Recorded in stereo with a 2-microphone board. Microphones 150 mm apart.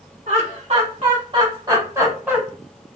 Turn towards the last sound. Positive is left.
turn(degrees=-10)  # may be behind; listen again after turning